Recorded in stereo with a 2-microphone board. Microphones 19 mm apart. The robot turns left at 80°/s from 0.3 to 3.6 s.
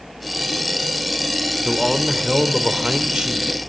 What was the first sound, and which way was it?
A man speaking, 20° left.